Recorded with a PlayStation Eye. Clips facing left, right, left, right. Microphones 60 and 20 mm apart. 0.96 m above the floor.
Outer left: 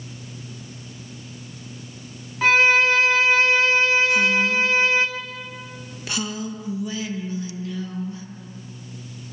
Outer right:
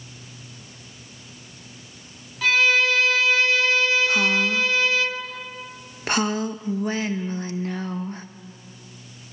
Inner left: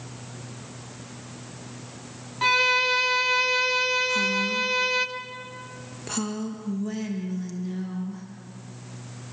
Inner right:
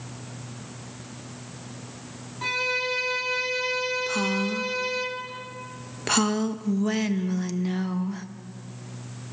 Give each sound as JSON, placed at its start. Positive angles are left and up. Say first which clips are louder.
{"t": 2.4, "sound": "a violin", "louder": "outer left 3 dB, inner left 6 dB", "side_deg": 30, "distance_m": 1.2}
{"t": 4.1, "sound": "a woman speaking", "louder": "outer left 1 dB, inner left 2 dB", "side_deg": -45, "distance_m": 1.2}